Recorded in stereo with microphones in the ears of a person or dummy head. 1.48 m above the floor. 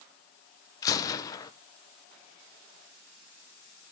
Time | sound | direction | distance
0.8 | a gunshot | 20° left (ahead or behind) | 1.1 m